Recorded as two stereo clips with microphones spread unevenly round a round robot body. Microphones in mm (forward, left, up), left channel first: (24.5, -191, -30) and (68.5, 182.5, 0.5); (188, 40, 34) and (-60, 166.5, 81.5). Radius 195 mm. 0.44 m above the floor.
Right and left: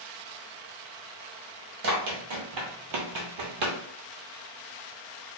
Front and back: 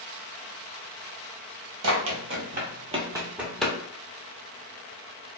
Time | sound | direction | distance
1.8 | running footsteps | 130° left | 0.9 m